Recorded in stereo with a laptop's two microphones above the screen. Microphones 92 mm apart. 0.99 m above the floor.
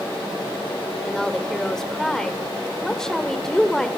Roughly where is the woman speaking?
Centre.